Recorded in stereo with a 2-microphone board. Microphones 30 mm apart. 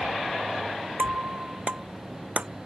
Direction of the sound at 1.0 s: 40° right (ahead or behind).